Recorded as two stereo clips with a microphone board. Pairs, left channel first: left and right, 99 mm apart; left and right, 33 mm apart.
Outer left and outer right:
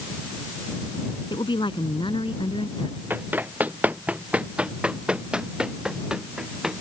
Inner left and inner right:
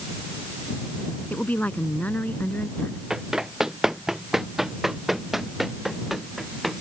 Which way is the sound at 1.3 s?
55° left (ahead or behind).